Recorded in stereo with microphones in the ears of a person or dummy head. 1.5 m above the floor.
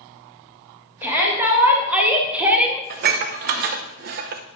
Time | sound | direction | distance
1.0 | a shout | 10° right (ahead or behind) | 2 m
2.9 | dishes clattering | 50° right (ahead or behind) | 0.7 m